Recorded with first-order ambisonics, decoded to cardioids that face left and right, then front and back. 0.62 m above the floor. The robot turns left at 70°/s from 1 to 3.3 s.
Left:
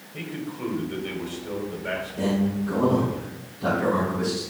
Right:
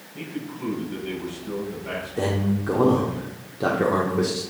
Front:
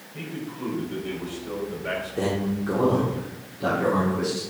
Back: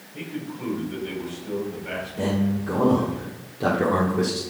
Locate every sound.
0.1 s a man speaking: 90° left, 3.5 m; by 3.2 s 65° right, 3.5 m
2.2 s a man speaking: 40° right, 1.5 m; by 4.4 s 120° right, 1.5 m